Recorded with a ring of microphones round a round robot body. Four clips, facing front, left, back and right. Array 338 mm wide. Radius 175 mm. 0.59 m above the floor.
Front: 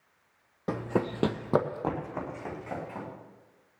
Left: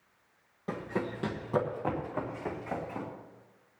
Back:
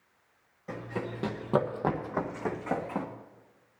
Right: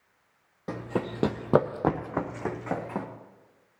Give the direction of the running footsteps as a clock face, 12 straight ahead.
12 o'clock.